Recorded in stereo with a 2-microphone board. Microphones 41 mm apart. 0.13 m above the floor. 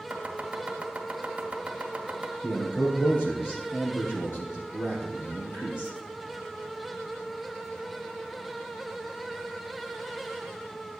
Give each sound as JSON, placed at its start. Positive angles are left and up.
{"t": 0.1, "sound": "chopping", "side_deg": -30, "distance_m": 1.7}
{"t": 2.4, "sound": "a man speaking", "side_deg": 55, "distance_m": 4.0}